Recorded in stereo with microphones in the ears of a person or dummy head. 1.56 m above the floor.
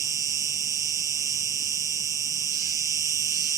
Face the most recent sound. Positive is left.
turn(degrees=-15)  # may be behind; listen again after turning